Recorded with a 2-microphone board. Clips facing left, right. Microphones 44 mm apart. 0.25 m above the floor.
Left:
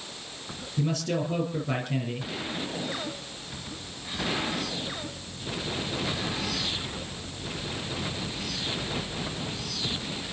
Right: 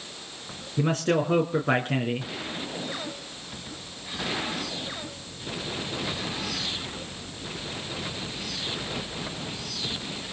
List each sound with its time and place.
0.8 s a man speaking: 55° right (ahead or behind), 3.5 m